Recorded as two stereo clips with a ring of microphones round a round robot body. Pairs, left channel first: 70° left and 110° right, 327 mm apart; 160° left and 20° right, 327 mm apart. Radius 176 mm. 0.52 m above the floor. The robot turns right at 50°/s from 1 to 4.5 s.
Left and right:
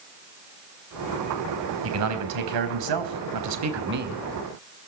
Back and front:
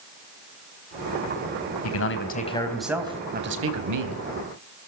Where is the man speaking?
160° right, 3.5 m; by 4.2 s 40° right, 3.5 m.